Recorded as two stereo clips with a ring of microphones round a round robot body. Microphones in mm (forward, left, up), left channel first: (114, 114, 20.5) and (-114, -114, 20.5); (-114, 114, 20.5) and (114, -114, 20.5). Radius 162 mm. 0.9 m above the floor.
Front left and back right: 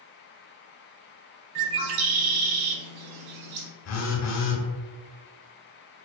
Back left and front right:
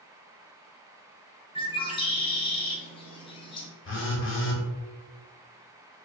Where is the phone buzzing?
85° left, 0.9 m.